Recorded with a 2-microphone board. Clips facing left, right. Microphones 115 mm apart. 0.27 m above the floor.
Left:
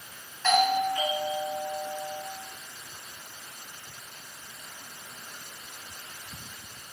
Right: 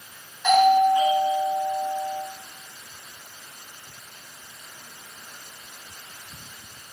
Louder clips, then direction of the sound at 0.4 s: Right 8 dB; 15° right (ahead or behind).